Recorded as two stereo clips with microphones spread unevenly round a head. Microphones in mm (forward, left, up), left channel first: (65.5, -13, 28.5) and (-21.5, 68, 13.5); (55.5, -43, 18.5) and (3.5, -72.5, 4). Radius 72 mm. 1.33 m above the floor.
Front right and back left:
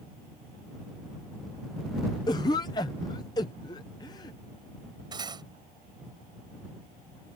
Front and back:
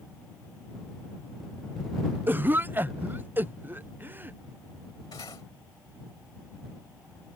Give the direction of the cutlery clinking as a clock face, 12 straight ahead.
9 o'clock.